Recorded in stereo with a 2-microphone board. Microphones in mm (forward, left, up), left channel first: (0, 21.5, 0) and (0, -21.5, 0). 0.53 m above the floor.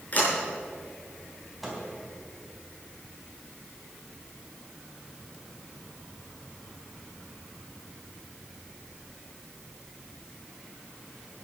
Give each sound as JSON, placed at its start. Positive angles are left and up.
{"t": 0.1, "sound": "a sliding door", "side_deg": 40, "distance_m": 6.0}
{"t": 1.6, "sound": "a microwave", "side_deg": 0, "distance_m": 3.5}